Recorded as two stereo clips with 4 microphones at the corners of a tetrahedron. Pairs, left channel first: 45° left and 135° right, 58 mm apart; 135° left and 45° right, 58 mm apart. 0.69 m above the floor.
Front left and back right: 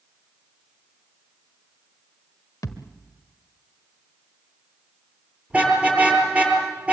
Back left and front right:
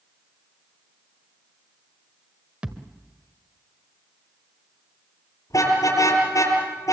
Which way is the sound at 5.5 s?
160° left.